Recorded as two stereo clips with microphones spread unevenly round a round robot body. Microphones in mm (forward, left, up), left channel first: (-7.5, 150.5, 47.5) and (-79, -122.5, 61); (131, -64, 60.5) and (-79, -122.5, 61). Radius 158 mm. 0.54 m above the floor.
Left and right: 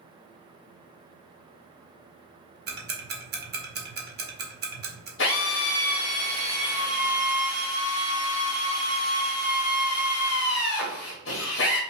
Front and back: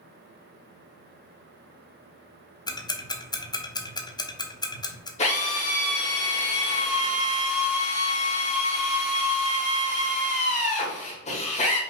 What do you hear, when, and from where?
2.7 s ticking: 55° right, 0.9 m
5.2 s a drill: 60° left, 1.6 m